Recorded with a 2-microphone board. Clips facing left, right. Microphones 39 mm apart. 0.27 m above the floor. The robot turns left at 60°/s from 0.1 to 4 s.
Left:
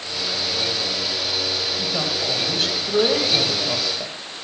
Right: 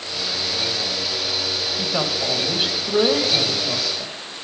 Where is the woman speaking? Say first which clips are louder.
Right 1 dB; 20° right (ahead or behind), 1.0 m; by 4.2 s 10° left (ahead or behind), 1.0 m.